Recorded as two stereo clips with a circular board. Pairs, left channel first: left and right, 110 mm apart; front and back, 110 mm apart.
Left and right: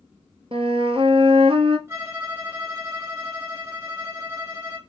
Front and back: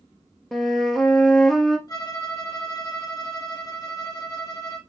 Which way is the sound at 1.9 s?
35° right.